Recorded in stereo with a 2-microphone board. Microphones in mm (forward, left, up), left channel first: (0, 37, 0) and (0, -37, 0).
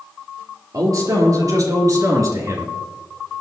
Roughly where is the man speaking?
Right.